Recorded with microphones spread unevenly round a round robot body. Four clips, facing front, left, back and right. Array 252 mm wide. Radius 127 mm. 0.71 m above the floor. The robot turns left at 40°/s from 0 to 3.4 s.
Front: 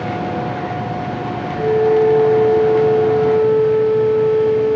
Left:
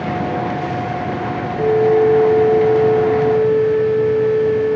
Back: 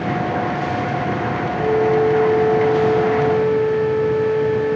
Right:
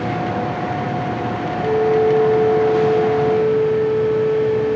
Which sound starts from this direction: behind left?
A flute, at 1.5 s.